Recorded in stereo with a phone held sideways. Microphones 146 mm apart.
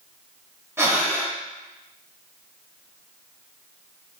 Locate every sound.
0.8 s breathing: 15° right (ahead or behind), 0.9 m